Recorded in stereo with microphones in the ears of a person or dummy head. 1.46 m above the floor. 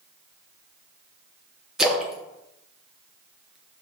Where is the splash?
Centre (ahead or behind), 0.5 m.